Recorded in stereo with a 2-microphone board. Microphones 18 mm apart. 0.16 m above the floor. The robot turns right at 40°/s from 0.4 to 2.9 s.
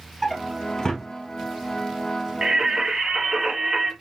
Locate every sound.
0.2 s a drawer: 15° left (ahead or behind), 0.8 m; by 1.1 s 40° left (ahead or behind), 0.8 m
2.4 s singing: 45° right (ahead or behind), 2.5 m; by 3.9 s 35° right (ahead or behind), 2.5 m